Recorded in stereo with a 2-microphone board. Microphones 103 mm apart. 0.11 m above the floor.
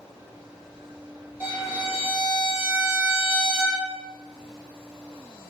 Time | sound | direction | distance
1.4 | a violin | 20° right (ahead or behind) | 2.0 m